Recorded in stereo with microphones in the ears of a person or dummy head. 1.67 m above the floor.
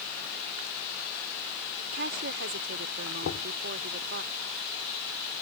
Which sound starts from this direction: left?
Knocking, at 3.2 s.